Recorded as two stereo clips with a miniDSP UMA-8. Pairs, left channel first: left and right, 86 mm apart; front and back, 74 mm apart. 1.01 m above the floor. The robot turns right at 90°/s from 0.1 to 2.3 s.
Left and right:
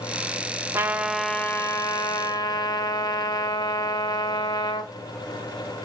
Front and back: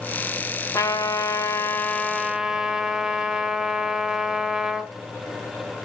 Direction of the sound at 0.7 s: 35° right.